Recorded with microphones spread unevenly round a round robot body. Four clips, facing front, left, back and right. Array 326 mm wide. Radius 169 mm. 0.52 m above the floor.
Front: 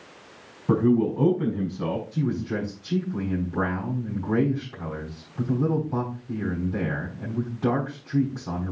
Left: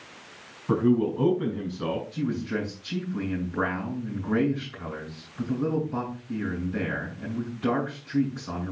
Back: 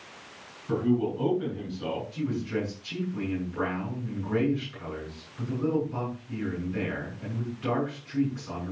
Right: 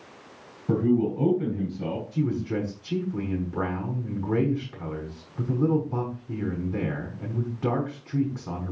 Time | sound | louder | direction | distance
0.7 | a man speaking | even, front 5 dB | 30° right | 5.5 m
2.1 | a man speaking | right 2 dB, front 3 dB | 45° right | 5.5 m